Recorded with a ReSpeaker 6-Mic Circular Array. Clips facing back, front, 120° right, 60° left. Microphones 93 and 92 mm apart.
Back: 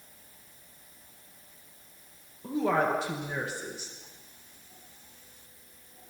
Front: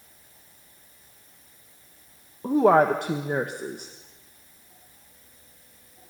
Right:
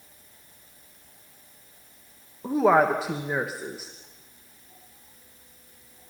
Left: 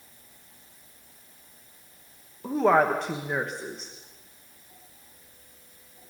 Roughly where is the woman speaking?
Ahead right.